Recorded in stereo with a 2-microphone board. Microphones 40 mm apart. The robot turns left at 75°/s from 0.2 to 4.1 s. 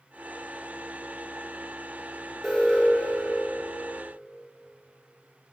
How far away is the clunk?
I don't hear a clunk.